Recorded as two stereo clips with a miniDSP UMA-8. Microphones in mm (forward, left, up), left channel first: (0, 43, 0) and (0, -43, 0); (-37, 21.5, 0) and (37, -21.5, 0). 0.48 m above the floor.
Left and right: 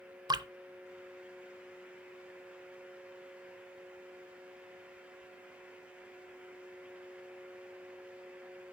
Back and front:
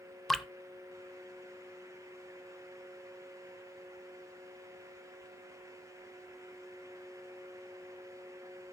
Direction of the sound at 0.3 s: 125° right.